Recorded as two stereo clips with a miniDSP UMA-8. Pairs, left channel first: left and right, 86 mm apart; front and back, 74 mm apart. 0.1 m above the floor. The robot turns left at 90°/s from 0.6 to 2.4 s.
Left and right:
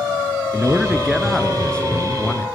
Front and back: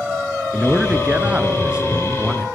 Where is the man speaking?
120° right, 1.2 m; by 2.5 s 80° left, 1.2 m.